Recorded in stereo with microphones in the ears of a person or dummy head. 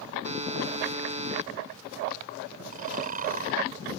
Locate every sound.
0.2 s a buzzer: 30° right (ahead or behind)
2.7 s snoring: 40° right (ahead or behind)